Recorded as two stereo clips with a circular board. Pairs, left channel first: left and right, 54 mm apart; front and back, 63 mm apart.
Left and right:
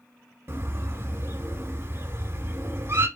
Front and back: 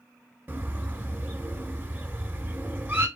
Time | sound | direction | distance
0.5 | a bird | 125° right | 0.6 m